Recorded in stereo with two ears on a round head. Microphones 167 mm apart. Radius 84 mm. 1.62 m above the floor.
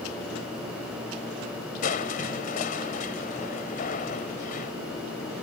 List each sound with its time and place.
1.8 s crushing: 45° left (ahead or behind)